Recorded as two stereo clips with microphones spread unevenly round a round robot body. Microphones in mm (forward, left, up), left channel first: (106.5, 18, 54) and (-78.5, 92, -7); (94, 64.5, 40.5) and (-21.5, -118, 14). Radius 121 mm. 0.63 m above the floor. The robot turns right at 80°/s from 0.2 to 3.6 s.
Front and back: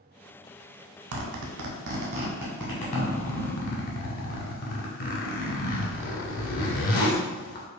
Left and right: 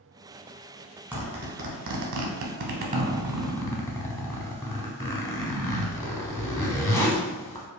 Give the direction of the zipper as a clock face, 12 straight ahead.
7 o'clock.